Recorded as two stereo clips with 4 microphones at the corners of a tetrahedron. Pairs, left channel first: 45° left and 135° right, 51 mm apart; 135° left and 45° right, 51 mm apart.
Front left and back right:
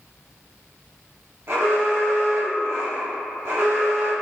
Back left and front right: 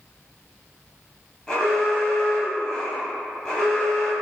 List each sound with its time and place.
1.5 s an alarm: 150° right, 1.4 m